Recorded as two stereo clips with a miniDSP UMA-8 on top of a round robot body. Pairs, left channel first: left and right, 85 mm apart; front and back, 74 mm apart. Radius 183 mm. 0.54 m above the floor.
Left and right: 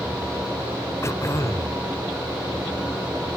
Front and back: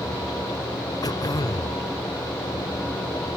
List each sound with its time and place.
1.0 s throat clearing: 35° left